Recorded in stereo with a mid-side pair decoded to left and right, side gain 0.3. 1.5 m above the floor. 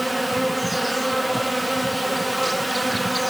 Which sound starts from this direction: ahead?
An insect, at 0.0 s.